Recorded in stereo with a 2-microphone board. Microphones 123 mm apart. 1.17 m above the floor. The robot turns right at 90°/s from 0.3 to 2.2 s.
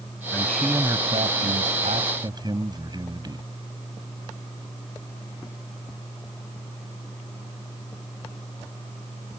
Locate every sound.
0.3 s a man speaking: 155° left; by 3.5 s 35° right